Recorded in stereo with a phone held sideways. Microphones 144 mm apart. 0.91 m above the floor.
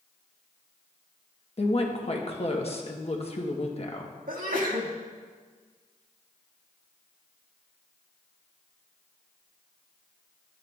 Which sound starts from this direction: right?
A sneeze, at 4.3 s.